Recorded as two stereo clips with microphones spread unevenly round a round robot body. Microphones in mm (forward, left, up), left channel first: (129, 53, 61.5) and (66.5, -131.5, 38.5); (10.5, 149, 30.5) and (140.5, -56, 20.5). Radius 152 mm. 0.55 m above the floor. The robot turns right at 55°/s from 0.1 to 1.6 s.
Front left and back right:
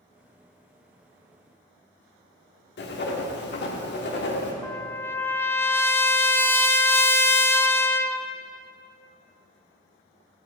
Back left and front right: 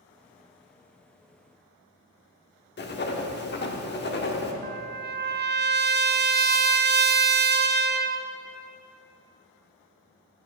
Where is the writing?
85° left, 1.5 m.